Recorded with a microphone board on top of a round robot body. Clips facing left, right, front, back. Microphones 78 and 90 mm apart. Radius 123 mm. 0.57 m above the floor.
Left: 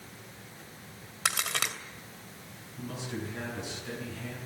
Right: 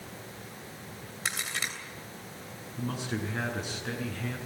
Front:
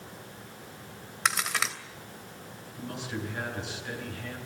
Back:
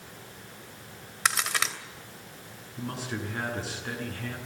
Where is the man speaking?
130° right, 7 m.